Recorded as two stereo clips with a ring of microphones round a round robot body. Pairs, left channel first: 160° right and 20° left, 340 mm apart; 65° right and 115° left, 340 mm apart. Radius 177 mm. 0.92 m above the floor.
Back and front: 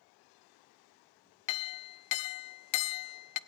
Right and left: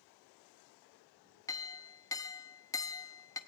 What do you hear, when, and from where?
1.5 s a clink: 150° right, 0.5 m